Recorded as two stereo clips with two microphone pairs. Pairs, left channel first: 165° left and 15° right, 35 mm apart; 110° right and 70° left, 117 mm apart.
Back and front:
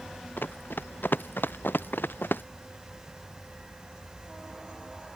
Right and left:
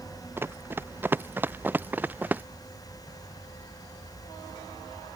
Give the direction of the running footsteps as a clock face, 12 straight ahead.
7 o'clock.